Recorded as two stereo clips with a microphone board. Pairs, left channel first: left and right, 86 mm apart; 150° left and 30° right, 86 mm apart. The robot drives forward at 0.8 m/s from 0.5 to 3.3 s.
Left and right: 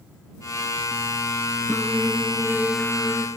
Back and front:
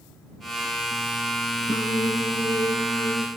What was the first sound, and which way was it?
Singing, straight behind.